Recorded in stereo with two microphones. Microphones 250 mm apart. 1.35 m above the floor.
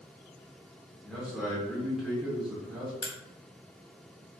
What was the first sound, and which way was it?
A man speaking, centre (ahead or behind).